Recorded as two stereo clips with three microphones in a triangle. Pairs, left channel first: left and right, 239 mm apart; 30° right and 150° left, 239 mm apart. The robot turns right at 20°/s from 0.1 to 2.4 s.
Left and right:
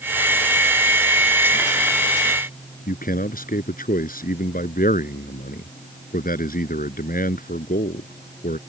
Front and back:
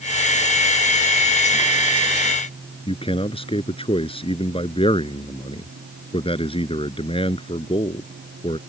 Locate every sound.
2.9 s a man speaking: 35° left